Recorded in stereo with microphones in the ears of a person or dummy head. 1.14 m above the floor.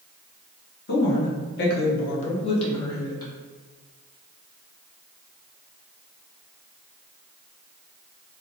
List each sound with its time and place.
0.9 s a woman speaking: 45° left (ahead or behind), 0.8 m; by 3.3 s 15° left (ahead or behind), 1.1 m